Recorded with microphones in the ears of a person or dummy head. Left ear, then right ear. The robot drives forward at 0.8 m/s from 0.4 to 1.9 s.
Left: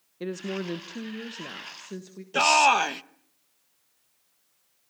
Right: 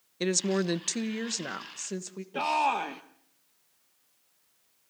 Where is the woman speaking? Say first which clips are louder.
Right 5 dB; 70° right (ahead or behind), 1.0 m; by 2.2 s 40° right (ahead or behind), 1.5 m.